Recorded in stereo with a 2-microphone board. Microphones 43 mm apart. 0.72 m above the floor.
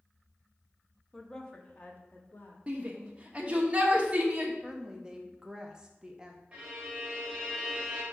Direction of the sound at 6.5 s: 25° right (ahead or behind).